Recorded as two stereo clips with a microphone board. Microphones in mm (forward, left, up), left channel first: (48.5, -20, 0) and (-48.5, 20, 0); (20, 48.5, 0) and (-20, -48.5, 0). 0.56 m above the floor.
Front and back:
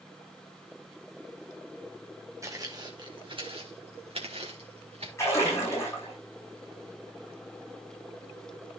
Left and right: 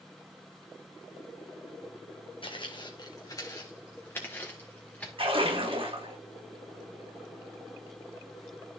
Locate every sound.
2.4 s footsteps: 100° left, 1.7 m; by 5.1 s 145° left, 3.5 m
5.2 s a splash: 85° right, 7 m